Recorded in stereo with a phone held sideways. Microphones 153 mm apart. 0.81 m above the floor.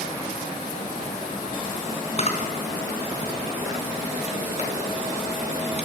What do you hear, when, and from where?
2.2 s a camera shutter: 45° left (ahead or behind), 3 m